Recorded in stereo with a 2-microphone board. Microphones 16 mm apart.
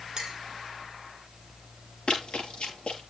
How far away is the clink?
About 2 m.